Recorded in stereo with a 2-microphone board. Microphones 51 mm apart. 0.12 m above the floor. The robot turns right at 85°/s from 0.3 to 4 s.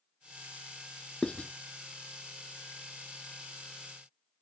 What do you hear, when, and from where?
1.2 s writing: 20° left (ahead or behind), 0.9 m; by 1.5 s 30° left (ahead or behind), 0.9 m